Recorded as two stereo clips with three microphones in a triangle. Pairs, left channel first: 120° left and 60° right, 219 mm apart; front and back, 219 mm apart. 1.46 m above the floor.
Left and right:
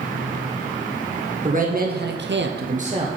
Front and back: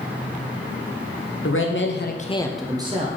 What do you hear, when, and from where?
1.4 s a man speaking: 10° right, 1.2 m; by 3.1 s 125° right, 0.9 m